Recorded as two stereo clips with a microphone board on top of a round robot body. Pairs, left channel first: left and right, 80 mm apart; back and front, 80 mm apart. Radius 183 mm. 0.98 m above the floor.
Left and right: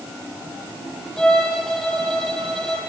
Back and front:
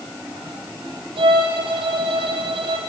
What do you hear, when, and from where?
1.2 s a violin: 10° left, 9 m